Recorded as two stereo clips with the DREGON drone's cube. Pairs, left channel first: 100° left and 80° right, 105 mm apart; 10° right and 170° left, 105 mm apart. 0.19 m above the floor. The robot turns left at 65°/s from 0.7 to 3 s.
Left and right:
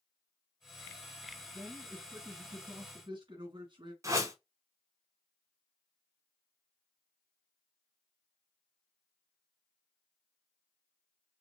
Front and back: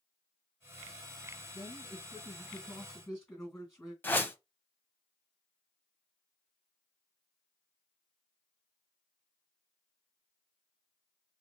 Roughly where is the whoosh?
Right.